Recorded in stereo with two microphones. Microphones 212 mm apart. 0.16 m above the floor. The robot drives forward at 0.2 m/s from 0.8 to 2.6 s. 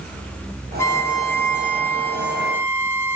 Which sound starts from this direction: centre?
A violin, at 0.8 s.